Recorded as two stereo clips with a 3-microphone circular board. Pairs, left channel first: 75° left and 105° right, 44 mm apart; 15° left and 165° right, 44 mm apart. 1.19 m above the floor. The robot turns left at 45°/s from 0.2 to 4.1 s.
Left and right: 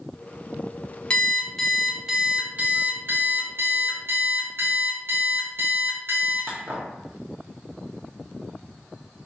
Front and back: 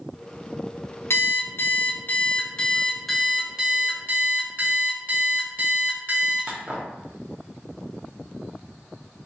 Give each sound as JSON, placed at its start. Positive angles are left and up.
{"t": 1.1, "sound": "an alarm clock", "azimuth_deg": 15, "distance_m": 0.6}